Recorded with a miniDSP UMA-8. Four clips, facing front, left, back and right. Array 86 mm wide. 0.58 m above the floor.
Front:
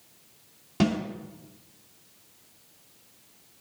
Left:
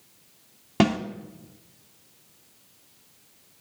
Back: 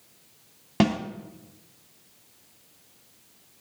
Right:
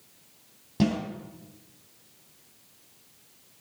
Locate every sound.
0.8 s a snare drum: 125° left, 2.5 m